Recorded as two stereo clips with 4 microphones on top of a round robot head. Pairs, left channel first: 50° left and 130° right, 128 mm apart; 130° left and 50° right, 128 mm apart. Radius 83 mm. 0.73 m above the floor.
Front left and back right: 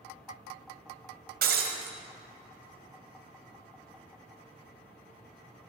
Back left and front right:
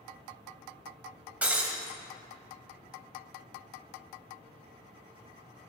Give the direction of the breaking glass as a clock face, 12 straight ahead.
4 o'clock.